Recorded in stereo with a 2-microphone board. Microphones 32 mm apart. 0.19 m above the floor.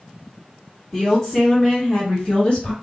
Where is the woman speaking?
10° left (ahead or behind), 1.4 m; by 2.7 s 45° left (ahead or behind), 1.9 m.